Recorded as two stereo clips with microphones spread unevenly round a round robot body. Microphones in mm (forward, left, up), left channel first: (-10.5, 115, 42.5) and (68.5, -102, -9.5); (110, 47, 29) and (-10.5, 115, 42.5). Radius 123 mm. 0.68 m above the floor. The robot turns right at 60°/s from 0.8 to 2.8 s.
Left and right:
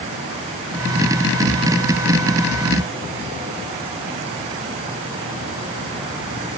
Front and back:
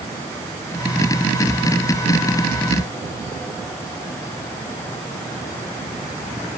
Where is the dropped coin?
I don't hear a dropped coin.